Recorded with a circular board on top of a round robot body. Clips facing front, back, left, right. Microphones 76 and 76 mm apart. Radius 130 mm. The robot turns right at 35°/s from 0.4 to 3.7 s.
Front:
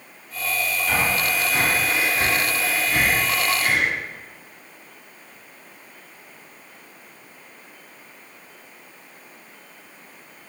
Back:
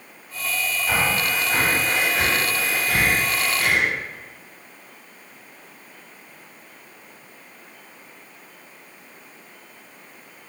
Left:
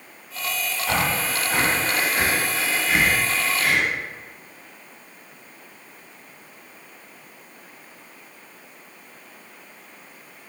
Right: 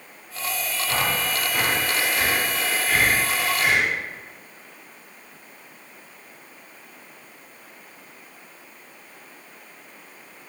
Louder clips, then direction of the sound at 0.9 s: Back 1 dB, left 2 dB; 105° left.